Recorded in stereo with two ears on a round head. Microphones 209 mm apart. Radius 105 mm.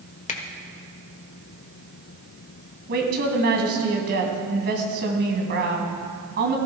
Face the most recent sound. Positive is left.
turn(degrees=-45)  # may be behind; listen again after turning